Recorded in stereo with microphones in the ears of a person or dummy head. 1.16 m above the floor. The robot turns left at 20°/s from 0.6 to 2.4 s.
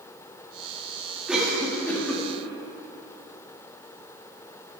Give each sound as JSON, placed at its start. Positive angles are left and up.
{"t": 1.3, "sound": "a cough", "side_deg": -10, "distance_m": 1.6}